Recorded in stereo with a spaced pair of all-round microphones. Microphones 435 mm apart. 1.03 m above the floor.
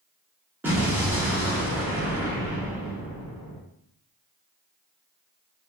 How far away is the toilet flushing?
I don't hear a toilet flushing.